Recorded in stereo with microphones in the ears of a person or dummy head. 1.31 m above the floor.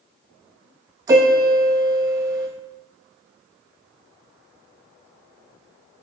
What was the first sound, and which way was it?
A piano, 20° right (ahead or behind).